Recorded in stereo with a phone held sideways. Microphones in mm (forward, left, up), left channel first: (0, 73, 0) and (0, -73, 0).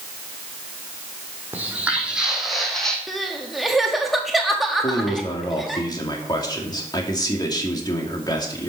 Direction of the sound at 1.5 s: 10° right (ahead or behind).